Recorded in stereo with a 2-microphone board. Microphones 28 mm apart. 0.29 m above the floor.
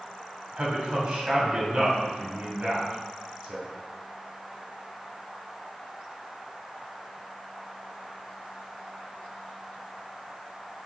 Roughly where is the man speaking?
Right.